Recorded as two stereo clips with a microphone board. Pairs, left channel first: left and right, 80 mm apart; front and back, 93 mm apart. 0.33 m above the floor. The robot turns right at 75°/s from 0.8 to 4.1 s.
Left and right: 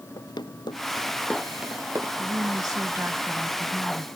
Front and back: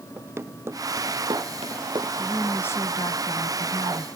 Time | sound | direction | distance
0.2 | running footsteps | 115° left | ?
2.2 | a woman speaking | 95° right | ?